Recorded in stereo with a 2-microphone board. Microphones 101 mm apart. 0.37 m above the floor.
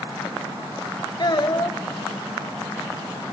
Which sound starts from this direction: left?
A child speaking, at 1.2 s.